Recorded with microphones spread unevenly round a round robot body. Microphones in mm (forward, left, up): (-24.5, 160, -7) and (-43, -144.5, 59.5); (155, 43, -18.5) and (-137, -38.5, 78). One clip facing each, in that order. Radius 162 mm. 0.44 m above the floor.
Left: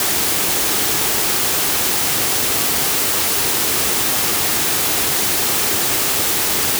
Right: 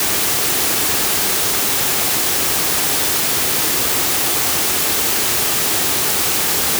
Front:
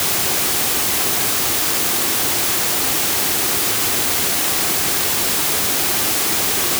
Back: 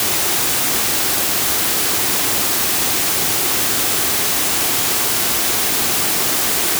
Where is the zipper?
No zipper in this recording.